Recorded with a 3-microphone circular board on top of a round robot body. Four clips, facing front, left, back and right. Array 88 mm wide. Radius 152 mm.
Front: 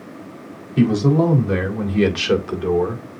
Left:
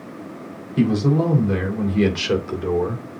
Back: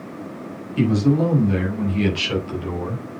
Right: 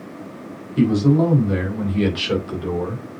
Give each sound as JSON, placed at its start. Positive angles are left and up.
{"t": 0.8, "sound": "a man speaking", "azimuth_deg": 0, "distance_m": 4.0}